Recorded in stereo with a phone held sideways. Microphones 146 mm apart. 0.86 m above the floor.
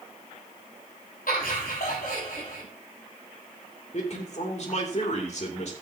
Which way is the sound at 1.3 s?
85° left.